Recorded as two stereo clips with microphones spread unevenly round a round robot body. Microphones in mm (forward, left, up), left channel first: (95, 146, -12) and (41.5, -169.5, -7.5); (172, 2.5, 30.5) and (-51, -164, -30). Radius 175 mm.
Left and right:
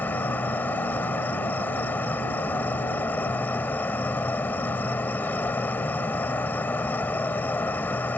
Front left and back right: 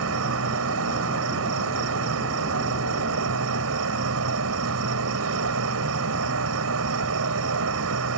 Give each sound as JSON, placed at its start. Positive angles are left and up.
{"t": 0.0, "sound": "an insect", "azimuth_deg": 165}